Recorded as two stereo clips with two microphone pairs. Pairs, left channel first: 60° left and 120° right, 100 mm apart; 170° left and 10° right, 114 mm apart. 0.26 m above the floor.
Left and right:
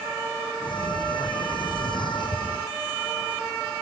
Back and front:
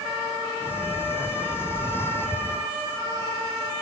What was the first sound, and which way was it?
A sliding door, 100° left.